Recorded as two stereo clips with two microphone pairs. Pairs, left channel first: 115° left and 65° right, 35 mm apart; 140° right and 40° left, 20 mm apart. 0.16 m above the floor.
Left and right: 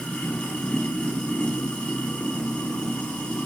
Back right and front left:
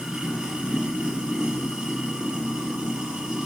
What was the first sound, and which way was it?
Running water, 70° left.